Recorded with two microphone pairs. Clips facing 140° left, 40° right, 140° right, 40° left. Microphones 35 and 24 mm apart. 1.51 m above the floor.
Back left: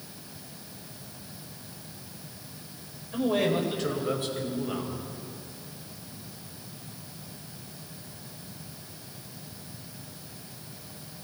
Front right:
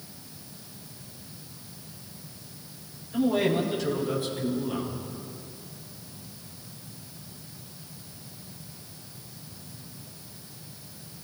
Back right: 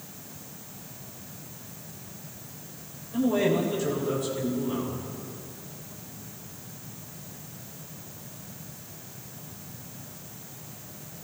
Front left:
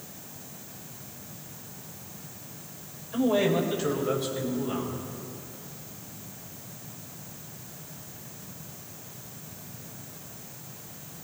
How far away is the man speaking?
About 6.5 m.